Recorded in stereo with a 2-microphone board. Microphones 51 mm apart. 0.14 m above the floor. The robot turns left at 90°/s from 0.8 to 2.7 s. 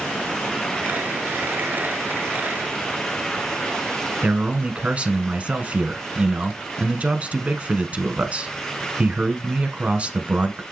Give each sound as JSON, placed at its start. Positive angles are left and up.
{"t": 4.2, "sound": "a man speaking", "side_deg": -25, "distance_m": 1.1}